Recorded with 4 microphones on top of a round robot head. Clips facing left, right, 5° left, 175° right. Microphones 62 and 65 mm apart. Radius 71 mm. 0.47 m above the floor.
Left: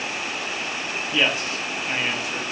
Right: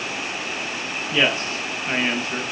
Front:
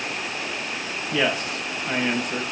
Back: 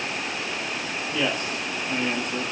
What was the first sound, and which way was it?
A man speaking, 30° right.